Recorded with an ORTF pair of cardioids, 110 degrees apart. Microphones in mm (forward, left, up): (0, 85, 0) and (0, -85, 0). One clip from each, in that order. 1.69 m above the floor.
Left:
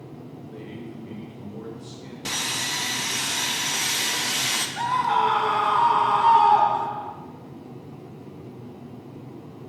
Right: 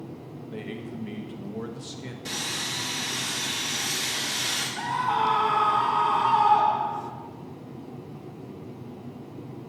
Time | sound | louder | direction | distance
0.5 | a man speaking | right 3 dB | 45° right | 1.1 m
2.2 | sawing | left 4 dB | 55° left | 1.2 m
4.8 | a scream | left 4 dB | 40° left | 0.6 m